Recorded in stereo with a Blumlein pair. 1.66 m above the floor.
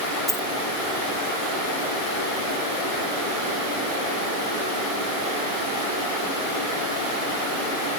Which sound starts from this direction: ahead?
A dropped coin, at 0.3 s.